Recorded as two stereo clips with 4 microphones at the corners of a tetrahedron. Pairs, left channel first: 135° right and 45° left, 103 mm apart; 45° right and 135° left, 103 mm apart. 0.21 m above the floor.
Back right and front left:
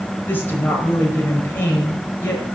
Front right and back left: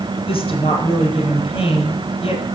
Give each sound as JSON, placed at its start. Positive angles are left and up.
{"t": 0.3, "sound": "a woman speaking", "azimuth_deg": -65, "distance_m": 4.5}